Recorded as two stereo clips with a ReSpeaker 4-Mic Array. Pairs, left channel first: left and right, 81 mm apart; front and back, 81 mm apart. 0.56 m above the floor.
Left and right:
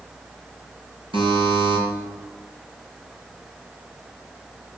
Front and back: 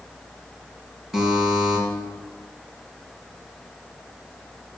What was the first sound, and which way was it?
A buzzer, 95° right.